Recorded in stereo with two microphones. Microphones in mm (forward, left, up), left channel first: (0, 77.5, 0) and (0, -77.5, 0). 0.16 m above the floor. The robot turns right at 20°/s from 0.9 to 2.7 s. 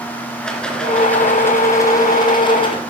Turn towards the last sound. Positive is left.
turn(degrees=45)